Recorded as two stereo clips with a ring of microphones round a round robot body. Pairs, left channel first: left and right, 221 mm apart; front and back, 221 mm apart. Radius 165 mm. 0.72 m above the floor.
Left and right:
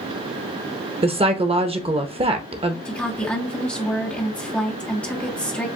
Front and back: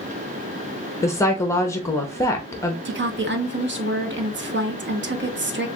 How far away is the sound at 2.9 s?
About 1.0 m.